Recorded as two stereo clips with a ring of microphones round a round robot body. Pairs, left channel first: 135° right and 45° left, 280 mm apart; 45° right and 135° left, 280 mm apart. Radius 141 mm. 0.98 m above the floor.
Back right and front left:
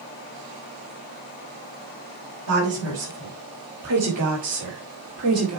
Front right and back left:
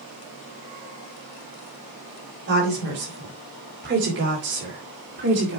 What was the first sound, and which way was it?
A woman speaking, 80° left.